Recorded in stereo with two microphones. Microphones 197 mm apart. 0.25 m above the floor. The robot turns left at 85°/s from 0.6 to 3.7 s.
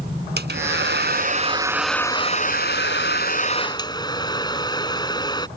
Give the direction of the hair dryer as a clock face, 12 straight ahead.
2 o'clock.